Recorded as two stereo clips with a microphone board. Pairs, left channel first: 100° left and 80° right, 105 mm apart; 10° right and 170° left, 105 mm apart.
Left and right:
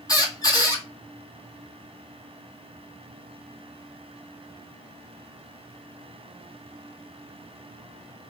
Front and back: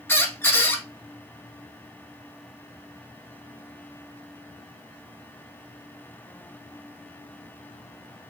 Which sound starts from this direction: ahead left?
A squeak, at 0.1 s.